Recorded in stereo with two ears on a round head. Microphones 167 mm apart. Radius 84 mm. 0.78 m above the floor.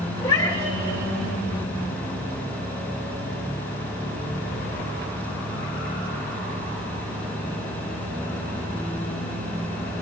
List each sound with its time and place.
0.2 s a cat meowing: 20° left (ahead or behind), 1.5 m